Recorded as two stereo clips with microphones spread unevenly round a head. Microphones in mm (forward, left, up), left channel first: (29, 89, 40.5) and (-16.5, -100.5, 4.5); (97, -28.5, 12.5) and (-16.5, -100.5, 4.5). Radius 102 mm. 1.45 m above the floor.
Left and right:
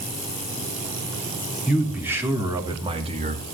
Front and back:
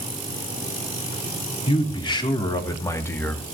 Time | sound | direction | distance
1.7 | a man speaking | 20° right | 3.5 m